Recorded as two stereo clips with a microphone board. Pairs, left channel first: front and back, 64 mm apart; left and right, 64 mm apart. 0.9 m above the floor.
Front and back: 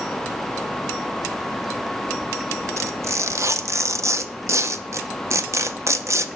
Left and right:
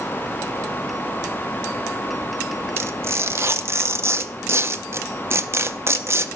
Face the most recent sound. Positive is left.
turn(degrees=-140)